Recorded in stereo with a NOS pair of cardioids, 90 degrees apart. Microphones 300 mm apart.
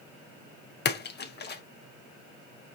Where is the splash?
35° left, 0.8 m.